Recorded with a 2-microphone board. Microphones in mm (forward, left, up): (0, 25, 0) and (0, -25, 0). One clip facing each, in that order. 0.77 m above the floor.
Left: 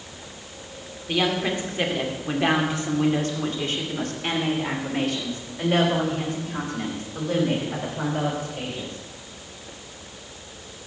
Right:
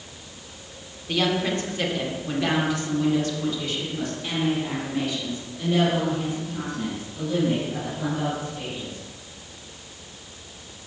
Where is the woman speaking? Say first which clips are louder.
Even; 15° left (ahead or behind), 2.5 m; by 9.0 s 80° left, 4.5 m.